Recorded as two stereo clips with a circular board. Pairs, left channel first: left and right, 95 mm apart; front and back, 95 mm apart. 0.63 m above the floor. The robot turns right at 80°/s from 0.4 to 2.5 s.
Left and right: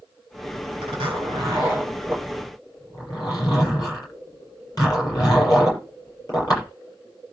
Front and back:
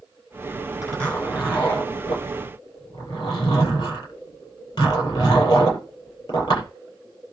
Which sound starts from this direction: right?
A zipper, at 0.8 s.